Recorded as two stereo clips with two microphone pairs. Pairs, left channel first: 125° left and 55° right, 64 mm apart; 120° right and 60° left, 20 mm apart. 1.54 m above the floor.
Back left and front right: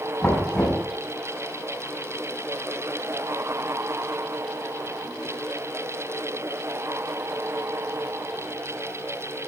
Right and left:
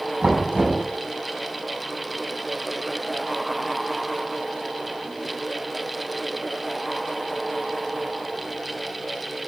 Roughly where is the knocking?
Ahead left.